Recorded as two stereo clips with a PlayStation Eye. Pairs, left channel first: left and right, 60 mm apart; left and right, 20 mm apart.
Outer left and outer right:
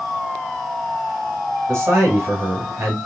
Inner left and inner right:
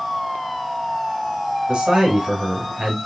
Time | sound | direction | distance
1.7 | a man speaking | 50° right (ahead or behind) | 2 m